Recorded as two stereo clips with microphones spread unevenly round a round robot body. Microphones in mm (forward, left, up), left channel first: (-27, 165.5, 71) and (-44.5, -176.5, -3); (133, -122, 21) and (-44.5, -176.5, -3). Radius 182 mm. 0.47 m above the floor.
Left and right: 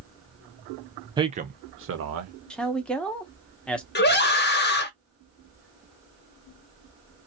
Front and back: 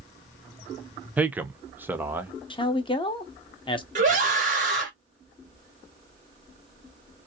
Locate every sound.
1.2 s a man speaking: 110° right, 0.7 m; by 2.3 s 90° right, 1.1 m
2.5 s a man speaking: 25° right, 0.8 m
4.0 s a scream: 155° left, 1.3 m